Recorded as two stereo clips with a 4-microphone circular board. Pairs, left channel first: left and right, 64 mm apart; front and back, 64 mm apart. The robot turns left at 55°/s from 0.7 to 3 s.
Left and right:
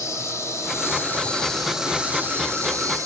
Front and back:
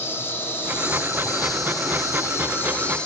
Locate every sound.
0.0 s an insect: 50° left, 5 m; by 3.1 s 75° right, 5 m